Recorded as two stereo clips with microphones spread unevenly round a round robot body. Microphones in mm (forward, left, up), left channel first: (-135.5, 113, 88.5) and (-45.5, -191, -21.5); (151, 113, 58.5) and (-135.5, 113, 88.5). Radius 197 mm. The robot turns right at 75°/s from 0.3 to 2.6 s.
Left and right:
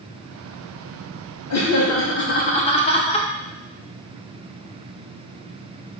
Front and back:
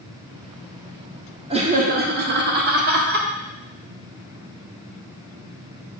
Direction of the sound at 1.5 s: 115° left.